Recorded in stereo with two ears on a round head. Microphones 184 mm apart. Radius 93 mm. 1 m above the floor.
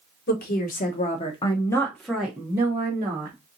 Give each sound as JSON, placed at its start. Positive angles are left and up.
{"t": 0.3, "sound": "a woman speaking", "side_deg": 50, "distance_m": 1.2}